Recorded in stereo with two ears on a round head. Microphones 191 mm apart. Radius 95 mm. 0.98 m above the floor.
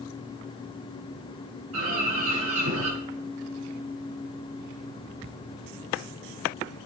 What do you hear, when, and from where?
1.7 s a bird: 75° right (ahead or behind), 7.5 m